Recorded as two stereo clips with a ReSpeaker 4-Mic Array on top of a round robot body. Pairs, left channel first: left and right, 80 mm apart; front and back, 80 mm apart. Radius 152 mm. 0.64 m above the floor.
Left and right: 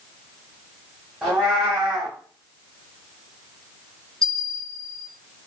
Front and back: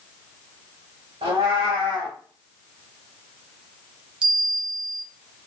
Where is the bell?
170° left, 0.6 m.